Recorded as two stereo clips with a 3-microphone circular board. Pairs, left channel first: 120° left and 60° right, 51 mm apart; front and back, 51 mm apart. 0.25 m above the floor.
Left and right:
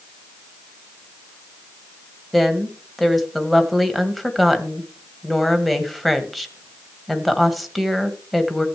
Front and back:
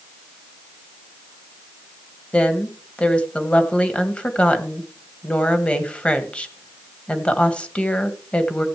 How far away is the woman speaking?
About 1.4 m.